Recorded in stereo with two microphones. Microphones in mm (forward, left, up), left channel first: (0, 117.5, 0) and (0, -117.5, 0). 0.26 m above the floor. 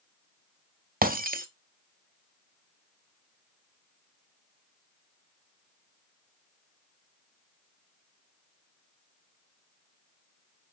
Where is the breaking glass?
40° right (ahead or behind), 0.5 m.